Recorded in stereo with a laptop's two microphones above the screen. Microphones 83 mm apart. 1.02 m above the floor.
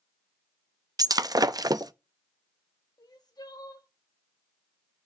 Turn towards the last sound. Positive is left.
turn(degrees=55)  # may be behind; listen again after turning